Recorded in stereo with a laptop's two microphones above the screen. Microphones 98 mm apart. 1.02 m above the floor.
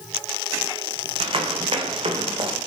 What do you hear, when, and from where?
1.2 s running footsteps: 65° right (ahead or behind), 4 m; by 2.6 s 70° right (ahead or behind), 3.5 m